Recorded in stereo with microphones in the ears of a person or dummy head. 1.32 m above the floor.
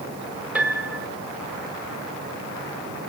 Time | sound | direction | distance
0.6 | a piano | 5° right (ahead or behind) | 1.7 m